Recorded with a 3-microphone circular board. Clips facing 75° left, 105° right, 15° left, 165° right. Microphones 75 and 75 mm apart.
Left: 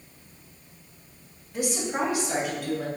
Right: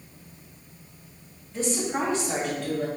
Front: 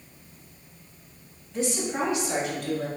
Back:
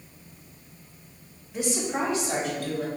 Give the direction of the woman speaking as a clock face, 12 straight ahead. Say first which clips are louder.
Right 1 dB, even; 8 o'clock.